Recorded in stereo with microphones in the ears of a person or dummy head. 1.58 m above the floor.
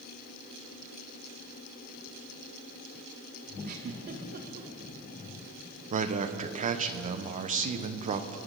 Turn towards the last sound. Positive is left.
turn(degrees=-40)  # may be behind; listen again after turning